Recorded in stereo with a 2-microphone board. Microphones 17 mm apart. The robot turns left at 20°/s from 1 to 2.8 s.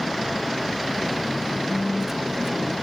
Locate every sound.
1.7 s a phone buzzing: 30° right (ahead or behind); by 2.7 s 5° right (ahead or behind)